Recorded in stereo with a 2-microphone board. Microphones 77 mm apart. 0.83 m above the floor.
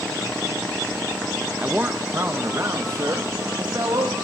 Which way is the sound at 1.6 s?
20° right (ahead or behind).